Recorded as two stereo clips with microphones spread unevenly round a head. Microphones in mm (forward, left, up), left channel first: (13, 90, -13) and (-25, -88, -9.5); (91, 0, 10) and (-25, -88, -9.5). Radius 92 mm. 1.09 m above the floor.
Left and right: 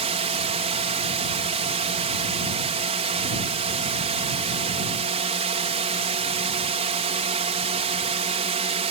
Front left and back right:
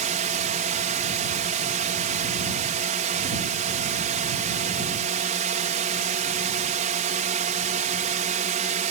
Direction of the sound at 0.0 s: 150° right.